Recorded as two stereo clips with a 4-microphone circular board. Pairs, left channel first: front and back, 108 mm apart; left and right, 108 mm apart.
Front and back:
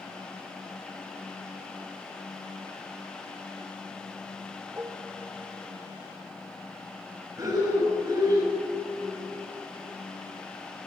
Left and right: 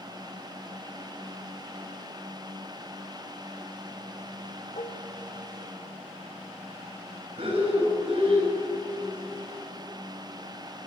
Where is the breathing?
125° right, 7 m.